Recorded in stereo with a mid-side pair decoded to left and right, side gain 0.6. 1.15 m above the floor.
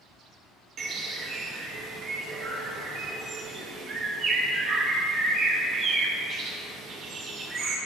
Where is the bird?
50° right, 1.4 m.